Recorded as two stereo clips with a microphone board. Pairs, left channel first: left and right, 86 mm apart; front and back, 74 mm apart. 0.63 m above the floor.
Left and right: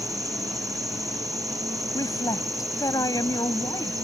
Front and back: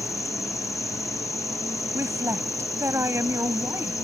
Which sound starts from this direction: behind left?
A woman speaking, at 1.9 s.